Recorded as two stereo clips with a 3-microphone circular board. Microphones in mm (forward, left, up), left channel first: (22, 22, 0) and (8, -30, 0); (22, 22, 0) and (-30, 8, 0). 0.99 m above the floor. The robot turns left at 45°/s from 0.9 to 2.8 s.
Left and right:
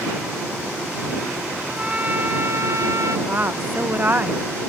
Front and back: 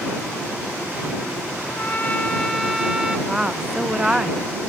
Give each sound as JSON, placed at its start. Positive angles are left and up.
{"t": 1.7, "sound": "a trumpet", "azimuth_deg": -30}
{"t": 3.3, "sound": "a woman speaking", "azimuth_deg": -95}